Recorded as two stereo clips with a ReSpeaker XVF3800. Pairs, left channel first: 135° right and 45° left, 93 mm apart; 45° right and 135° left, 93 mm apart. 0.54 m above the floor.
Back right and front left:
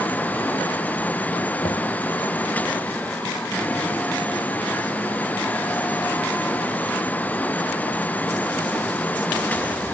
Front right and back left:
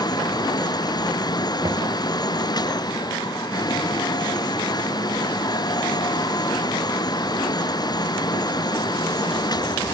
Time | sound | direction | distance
1.6 | knocking | 175° right | ?